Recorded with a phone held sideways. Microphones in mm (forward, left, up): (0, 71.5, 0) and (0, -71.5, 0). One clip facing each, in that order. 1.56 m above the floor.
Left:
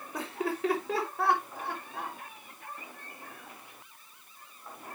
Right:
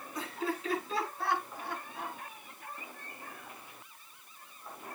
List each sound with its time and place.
0.1 s laughter: 80° left, 5.5 m